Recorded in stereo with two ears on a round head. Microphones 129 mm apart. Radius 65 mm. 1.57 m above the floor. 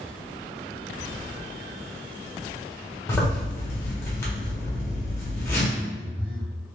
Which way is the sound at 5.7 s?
40° right (ahead or behind).